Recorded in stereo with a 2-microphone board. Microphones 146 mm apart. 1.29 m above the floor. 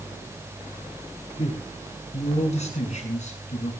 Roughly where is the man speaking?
Left.